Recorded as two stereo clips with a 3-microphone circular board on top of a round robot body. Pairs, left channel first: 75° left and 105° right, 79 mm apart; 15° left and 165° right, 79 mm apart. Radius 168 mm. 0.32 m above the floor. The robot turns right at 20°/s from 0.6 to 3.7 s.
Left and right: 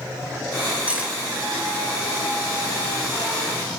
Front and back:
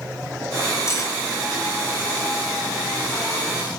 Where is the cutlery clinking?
35° right, 0.9 m; by 1.2 s 30° right, 0.9 m.